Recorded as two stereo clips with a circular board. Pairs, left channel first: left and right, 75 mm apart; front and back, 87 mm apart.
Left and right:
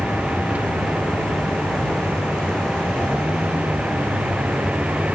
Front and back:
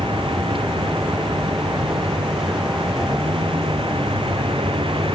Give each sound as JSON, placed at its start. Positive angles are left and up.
{"t": 0.0, "sound": "a vehicle", "azimuth_deg": -165}